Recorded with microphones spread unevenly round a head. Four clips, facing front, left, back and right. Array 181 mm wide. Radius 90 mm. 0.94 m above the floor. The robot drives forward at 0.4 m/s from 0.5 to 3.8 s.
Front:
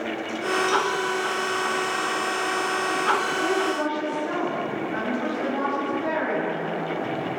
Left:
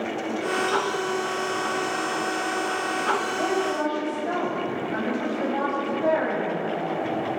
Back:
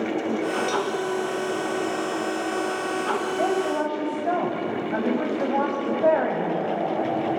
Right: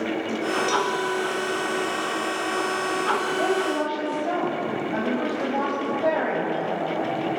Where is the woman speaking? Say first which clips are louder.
Right 1 dB, back 1 dB; 165° right, 6 m.